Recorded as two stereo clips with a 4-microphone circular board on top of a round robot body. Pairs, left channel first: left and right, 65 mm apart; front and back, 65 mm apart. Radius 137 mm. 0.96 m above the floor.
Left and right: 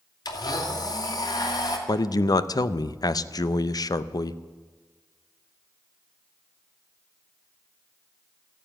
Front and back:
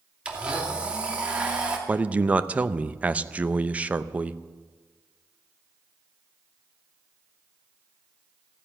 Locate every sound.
0.2 s a blender: 105° left, 2.5 m
1.9 s a man speaking: 110° left, 0.8 m